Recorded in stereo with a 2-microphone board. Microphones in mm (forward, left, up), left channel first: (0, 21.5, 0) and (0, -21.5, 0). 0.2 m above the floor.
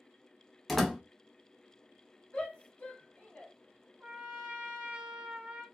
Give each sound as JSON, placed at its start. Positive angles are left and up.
{"t": 0.7, "sound": "a door slam", "side_deg": 5, "distance_m": 0.7}
{"t": 2.3, "sound": "a shout", "side_deg": 30, "distance_m": 1.3}
{"t": 4.0, "sound": "a trumpet", "side_deg": -25, "distance_m": 0.8}